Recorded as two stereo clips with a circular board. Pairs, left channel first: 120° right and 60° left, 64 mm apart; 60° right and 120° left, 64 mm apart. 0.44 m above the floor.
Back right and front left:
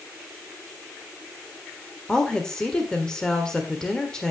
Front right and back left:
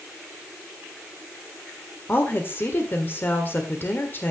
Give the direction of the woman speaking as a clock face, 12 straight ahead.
2 o'clock.